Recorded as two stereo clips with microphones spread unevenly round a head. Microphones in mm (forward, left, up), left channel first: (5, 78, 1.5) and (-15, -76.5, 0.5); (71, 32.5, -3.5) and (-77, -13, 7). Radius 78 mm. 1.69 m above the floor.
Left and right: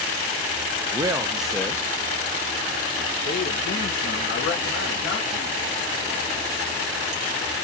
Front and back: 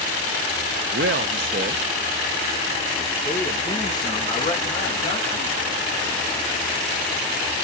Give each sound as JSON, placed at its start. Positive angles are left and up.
{"t": 0.9, "sound": "a man speaking", "azimuth_deg": -160, "distance_m": 0.7}